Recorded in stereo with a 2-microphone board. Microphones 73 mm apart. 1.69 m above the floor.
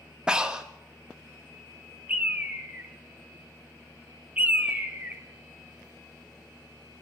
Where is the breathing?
10° right (ahead or behind), 1.3 m.